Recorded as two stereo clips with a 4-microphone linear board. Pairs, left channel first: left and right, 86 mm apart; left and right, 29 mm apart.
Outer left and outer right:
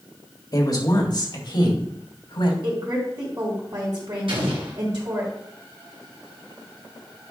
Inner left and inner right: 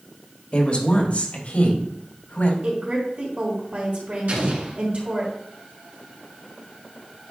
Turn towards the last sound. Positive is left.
turn(degrees=-70)  # may be behind; listen again after turning